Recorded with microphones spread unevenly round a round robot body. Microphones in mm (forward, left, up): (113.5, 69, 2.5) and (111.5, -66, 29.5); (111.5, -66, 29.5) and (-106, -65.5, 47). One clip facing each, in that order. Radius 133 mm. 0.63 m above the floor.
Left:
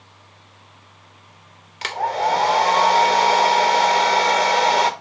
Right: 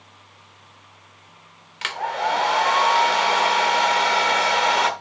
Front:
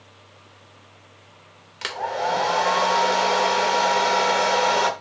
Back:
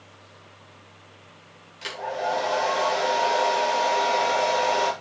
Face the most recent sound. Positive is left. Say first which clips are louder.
# left 4 dB, front 2 dB
turn(degrees=35)